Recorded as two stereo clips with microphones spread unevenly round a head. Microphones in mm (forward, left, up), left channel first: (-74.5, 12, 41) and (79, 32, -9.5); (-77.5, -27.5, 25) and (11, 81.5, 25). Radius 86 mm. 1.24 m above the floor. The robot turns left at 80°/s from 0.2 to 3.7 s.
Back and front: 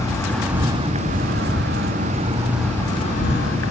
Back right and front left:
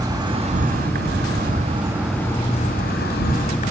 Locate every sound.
0.0 s an insect: 110° left, 2.5 m; by 3.7 s 170° right, 2.5 m